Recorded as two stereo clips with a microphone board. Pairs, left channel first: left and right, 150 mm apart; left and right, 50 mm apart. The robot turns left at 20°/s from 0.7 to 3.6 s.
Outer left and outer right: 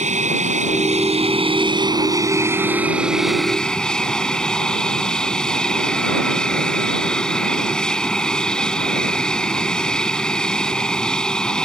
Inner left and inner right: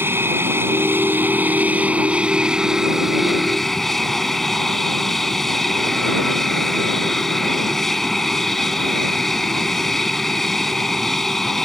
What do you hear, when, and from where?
0.0 s an aircraft: 125° right; by 11.7 s 175° left